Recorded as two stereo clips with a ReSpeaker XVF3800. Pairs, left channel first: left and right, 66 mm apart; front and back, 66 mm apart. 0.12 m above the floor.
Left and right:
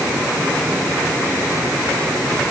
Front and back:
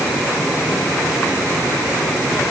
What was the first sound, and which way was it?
Only background noise.